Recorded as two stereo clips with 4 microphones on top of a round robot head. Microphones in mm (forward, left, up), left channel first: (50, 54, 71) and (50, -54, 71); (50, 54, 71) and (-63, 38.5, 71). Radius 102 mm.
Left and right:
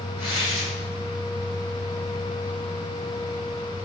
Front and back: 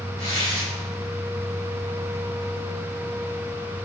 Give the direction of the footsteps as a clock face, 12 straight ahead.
I don't hear footsteps.